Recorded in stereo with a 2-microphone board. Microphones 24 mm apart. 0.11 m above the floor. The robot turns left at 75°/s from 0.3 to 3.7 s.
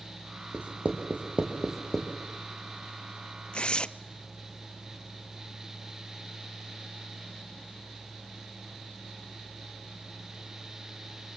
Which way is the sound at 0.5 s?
60° right (ahead or behind).